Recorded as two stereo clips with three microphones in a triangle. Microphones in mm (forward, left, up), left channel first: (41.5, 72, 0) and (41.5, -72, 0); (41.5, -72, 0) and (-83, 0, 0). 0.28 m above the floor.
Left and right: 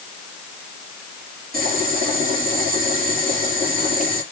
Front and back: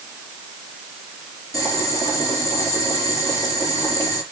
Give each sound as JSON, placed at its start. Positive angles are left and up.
{"t": 1.5, "sound": "boiling", "azimuth_deg": -100, "distance_m": 5.0}